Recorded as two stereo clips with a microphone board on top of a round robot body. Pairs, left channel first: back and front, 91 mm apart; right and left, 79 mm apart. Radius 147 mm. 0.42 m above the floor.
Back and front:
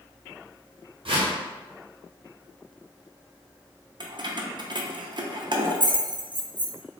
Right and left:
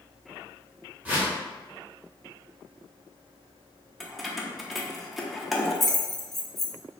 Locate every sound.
1.1 s a whoosh: 15° left, 0.9 m
4.0 s keys jangling: straight ahead, 0.6 m